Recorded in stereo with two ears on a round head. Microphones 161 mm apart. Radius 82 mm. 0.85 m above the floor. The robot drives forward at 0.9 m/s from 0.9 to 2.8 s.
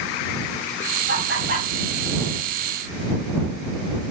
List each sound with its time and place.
1.1 s laughter: 65° right (ahead or behind), 6.5 m; by 1.7 s 70° right (ahead or behind), 6.5 m